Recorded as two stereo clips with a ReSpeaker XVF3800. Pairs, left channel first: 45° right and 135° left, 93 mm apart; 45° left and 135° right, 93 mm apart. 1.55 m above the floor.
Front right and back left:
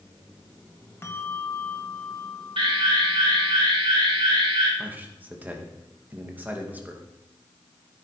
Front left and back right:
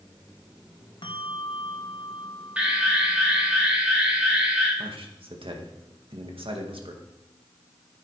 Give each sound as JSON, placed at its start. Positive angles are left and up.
{"t": 1.0, "sound": "a bell", "azimuth_deg": 20, "distance_m": 1.2}
{"t": 2.6, "sound": "an alarm", "azimuth_deg": 150, "distance_m": 4.0}
{"t": 4.8, "sound": "a man speaking", "azimuth_deg": -155, "distance_m": 2.0}